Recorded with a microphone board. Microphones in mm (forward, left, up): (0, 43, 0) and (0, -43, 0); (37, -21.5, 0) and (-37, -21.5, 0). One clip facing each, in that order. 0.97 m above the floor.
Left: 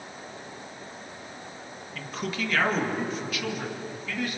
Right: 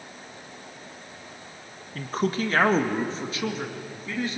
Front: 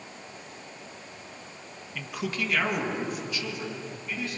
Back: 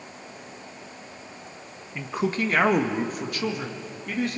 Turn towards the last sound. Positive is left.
turn(degrees=-155)